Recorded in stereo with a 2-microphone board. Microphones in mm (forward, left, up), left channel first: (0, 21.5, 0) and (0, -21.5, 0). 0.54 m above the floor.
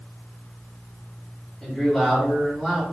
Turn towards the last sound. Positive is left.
turn(degrees=5)  # may be behind; listen again after turning